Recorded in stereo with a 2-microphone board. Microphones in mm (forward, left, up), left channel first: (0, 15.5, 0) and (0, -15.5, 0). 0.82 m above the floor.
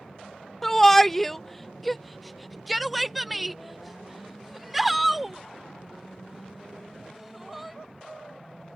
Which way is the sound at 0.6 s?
10° left (ahead or behind).